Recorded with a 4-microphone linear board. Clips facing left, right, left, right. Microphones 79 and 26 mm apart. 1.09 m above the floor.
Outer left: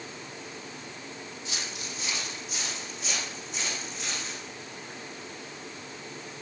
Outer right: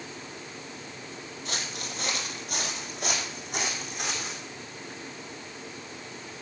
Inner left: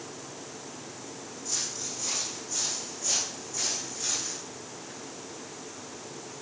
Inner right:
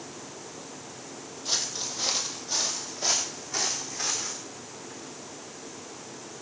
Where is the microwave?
I don't hear a microwave.